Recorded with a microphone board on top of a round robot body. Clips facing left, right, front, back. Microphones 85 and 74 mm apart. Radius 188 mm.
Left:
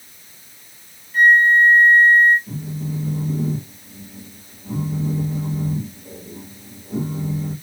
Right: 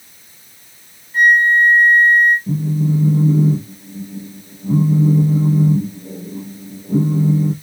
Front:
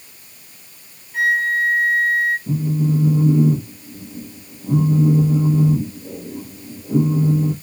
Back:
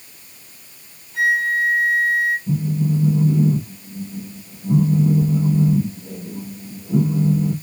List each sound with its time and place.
1.1 s a flute: 35° right, 4 m
2.5 s a phone buzzing: 45° right, 5 m